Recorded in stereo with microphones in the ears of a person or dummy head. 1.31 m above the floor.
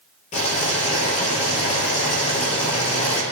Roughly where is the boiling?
Left.